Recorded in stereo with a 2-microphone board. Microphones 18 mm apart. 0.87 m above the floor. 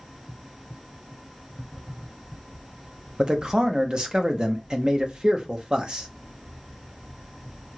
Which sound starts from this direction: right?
A man speaking, at 3.2 s.